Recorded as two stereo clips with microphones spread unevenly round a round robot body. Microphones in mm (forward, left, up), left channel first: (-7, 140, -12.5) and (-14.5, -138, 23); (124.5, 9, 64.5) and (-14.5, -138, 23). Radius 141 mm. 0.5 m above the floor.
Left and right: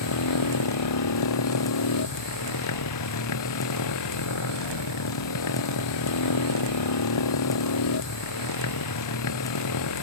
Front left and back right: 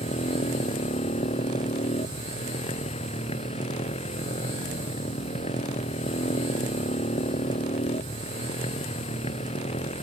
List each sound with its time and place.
0.0 s a motorcycle: 115° left